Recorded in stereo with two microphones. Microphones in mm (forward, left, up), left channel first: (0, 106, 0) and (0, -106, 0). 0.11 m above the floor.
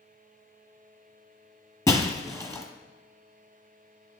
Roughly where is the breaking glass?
Centre.